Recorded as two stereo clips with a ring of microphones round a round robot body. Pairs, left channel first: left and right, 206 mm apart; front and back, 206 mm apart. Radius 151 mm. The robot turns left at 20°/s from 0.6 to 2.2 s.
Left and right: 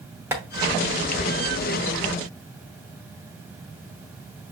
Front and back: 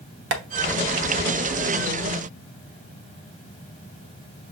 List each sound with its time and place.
0.3 s tapping: 170° right, 0.8 m